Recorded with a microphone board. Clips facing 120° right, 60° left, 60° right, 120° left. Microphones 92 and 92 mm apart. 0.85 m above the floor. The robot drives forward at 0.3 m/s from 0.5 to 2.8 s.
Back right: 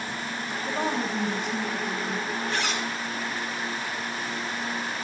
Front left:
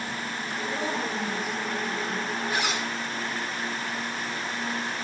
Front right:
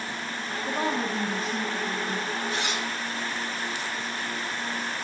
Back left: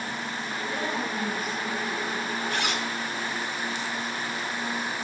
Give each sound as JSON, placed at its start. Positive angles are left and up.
{"t": 0.7, "sound": "a woman speaking", "azimuth_deg": -120, "distance_m": 5.5}
{"t": 2.5, "sound": "a zipper", "azimuth_deg": 140, "distance_m": 2.5}